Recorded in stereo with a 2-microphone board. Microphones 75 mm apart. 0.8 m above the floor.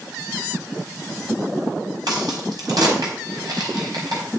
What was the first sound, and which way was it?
A crack, 70° right (ahead or behind).